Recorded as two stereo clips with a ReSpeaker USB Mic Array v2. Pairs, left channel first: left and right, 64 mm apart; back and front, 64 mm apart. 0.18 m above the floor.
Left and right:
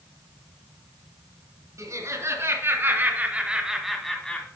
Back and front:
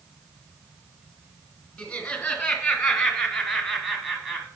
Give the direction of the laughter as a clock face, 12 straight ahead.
3 o'clock.